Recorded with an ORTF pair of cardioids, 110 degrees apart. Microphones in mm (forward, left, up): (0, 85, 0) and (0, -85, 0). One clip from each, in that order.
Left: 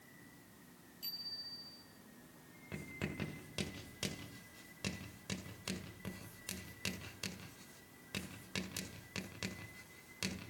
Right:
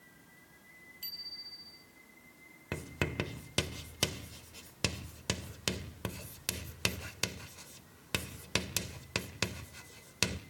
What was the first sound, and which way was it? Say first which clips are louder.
A bicycle bell: right 1 dB; 35° right.